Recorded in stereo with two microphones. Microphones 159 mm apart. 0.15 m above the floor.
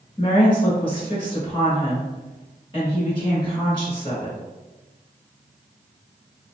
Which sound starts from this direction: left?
A woman speaking, at 0.2 s.